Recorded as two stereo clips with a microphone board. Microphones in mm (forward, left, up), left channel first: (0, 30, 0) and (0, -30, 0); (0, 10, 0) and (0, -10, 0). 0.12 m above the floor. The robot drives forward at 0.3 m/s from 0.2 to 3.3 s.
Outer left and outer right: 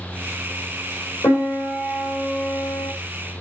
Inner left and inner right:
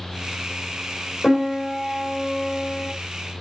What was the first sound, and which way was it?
A piano, 65° left (ahead or behind).